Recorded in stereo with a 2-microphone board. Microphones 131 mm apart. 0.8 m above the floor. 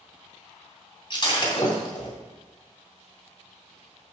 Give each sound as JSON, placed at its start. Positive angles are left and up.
{"t": 1.1, "sound": "breaking glass", "side_deg": 40, "distance_m": 2.5}